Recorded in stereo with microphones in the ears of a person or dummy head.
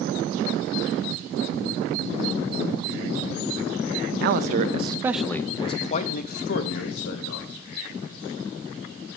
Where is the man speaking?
55° right (ahead or behind), 0.8 m; by 7.5 s 65° left (ahead or behind), 1.7 m.